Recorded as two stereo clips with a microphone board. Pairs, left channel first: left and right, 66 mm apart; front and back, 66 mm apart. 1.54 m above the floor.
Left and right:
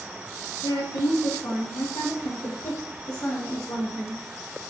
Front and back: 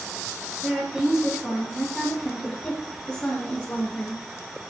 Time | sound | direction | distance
0.6 | a woman speaking | 105° left | 2.5 m